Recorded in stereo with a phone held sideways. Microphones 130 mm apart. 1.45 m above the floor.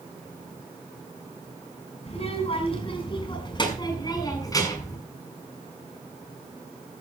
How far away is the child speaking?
About 5.5 m.